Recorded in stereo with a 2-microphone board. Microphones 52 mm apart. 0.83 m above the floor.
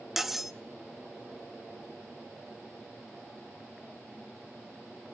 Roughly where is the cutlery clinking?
Centre.